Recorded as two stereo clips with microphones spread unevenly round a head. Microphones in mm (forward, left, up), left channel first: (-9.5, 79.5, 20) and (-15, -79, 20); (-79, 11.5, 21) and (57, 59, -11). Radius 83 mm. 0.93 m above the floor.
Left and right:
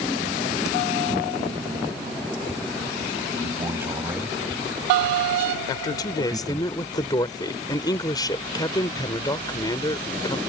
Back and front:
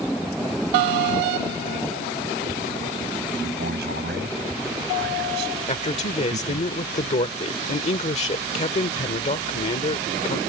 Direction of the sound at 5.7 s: 155° left.